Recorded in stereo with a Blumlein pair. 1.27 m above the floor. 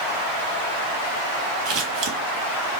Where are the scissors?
45° right, 1.3 m.